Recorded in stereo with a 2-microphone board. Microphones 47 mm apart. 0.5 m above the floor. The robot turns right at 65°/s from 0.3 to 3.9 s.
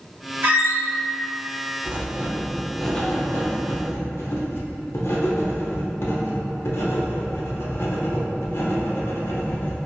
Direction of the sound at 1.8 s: 50° right.